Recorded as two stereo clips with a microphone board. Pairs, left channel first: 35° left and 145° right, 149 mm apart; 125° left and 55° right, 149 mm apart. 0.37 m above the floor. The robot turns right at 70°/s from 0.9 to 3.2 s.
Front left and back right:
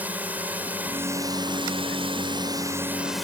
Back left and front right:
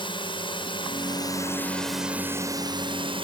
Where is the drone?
140° left; by 3.2 s 55° right.